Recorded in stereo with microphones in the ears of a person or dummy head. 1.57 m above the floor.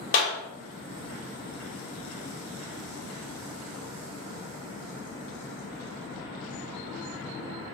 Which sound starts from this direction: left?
A clap, at 0.1 s.